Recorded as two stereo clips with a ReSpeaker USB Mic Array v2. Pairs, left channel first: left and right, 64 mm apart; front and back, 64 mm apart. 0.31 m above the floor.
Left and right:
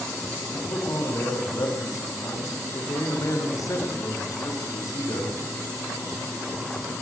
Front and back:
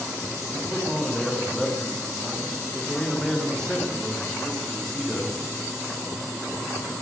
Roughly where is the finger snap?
I don't hear a finger snap.